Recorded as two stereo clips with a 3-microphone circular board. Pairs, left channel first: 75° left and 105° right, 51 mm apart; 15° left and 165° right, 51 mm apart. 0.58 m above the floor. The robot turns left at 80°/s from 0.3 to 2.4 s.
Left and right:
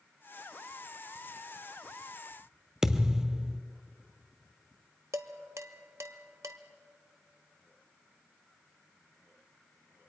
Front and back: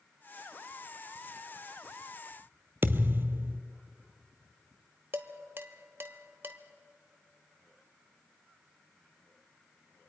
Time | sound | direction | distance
2.8 | a thud | straight behind | 0.7 m
5.1 | dishes clattering | 120° right | 1.0 m